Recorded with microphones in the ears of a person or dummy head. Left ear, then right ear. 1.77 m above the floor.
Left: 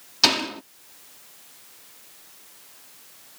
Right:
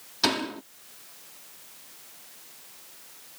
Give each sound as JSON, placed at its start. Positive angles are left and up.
{"t": 0.2, "sound": "a door slam", "side_deg": 20}